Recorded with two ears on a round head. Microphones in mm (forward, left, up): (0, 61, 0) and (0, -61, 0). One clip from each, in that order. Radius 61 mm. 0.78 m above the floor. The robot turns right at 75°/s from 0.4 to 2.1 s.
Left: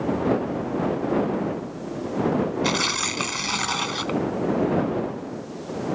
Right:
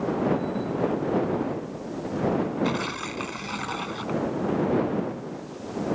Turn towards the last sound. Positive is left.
turn(degrees=75)  # may be behind; listen again after turning